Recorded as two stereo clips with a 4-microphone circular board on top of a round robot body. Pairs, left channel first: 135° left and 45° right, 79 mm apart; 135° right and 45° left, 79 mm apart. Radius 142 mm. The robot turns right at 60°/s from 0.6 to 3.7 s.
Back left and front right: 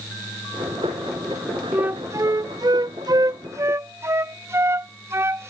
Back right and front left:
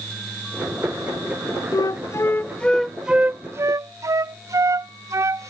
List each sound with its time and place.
1.7 s a flute: 115° right; by 5.5 s 5° left